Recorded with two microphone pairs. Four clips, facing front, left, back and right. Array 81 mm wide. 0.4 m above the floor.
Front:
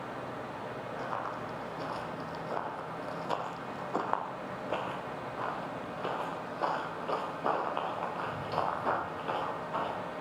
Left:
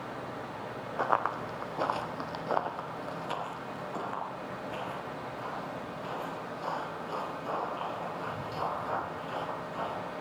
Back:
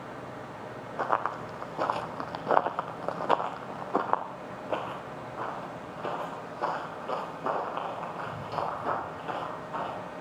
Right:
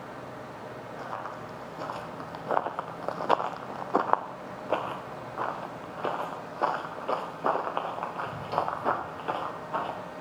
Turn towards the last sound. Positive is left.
turn(degrees=-85)